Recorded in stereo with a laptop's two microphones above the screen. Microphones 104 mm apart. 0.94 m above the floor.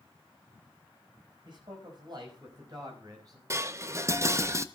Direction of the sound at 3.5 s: 30° right (ahead or behind).